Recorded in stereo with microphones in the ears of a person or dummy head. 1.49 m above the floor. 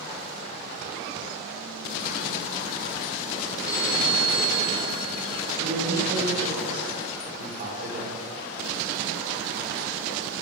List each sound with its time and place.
3.6 s a phone ringing: 15° left (ahead or behind), 7.5 m
5.6 s a man speaking: 45° right (ahead or behind), 6 m